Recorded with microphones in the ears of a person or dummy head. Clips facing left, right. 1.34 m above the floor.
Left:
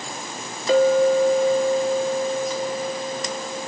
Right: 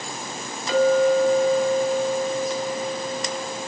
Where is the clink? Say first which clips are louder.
Left 1 dB; 40° left (ahead or behind), 1.4 m.